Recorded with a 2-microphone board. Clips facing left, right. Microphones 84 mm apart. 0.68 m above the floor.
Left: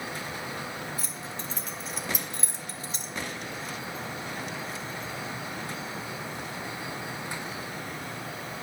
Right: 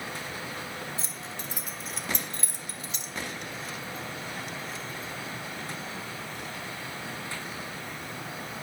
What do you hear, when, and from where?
1.0 s keys jangling: 30° right (ahead or behind), 1.1 m; by 3.1 s 45° left (ahead or behind), 0.9 m